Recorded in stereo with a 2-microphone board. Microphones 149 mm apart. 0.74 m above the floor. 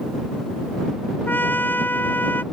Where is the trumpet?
10° left (ahead or behind).